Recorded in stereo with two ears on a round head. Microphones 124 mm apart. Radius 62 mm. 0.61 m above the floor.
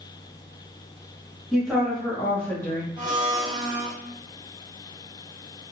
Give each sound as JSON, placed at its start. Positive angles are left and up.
{"t": 1.5, "sound": "a woman speaking", "side_deg": -5, "distance_m": 1.2}
{"t": 3.0, "sound": "a blender", "side_deg": -30, "distance_m": 0.9}